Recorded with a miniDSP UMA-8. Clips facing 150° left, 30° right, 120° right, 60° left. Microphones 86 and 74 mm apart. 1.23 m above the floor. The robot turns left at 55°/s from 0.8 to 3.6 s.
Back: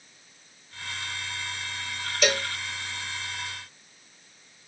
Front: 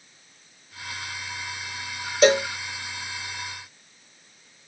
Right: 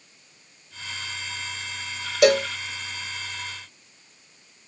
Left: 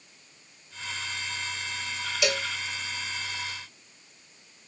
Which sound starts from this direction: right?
A cowbell, at 2.2 s.